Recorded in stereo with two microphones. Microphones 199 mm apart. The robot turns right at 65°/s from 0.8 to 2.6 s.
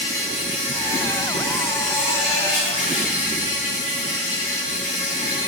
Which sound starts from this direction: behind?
An insect, at 0.0 s.